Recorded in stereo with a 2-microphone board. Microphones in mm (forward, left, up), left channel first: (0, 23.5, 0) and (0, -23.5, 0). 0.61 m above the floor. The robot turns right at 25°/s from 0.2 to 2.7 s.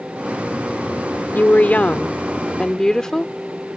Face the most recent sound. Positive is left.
turn(degrees=160)